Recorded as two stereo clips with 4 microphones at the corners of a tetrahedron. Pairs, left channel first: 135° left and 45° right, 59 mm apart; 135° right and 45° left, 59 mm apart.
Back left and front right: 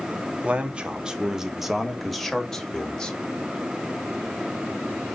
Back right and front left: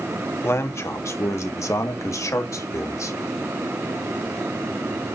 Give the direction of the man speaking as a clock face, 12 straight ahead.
4 o'clock.